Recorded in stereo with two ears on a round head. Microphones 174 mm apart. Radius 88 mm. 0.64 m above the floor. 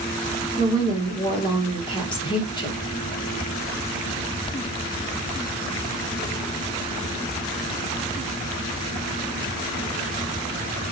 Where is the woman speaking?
25° left (ahead or behind), 1.2 m.